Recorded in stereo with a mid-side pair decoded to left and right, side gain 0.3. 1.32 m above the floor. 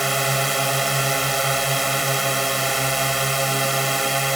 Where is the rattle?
No rattle in this recording.